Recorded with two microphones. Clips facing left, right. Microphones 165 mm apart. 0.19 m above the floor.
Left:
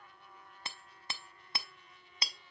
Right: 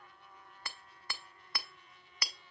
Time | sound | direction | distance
0.7 | hammering | 25° left (ahead or behind) | 0.5 m